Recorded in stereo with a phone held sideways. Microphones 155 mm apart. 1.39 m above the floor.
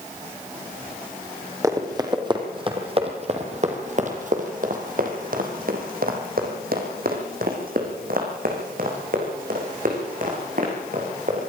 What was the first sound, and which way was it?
Running footsteps, 20° right (ahead or behind).